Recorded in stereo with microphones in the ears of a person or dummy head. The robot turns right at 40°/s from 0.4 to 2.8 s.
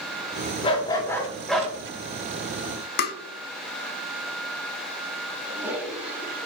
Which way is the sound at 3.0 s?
55° left (ahead or behind).